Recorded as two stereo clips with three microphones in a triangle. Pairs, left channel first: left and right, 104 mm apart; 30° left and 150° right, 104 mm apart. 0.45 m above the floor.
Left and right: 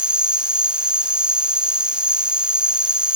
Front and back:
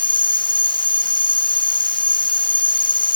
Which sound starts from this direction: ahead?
An insect, at 0.0 s.